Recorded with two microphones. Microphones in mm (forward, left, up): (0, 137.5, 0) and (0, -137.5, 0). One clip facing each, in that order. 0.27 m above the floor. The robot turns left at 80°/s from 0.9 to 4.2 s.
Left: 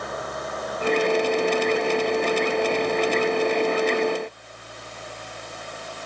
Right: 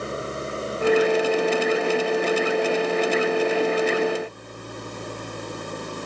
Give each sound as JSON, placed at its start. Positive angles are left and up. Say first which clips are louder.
{"t": 0.0, "sound": "an engine running", "louder": "right 3 dB", "azimuth_deg": -150}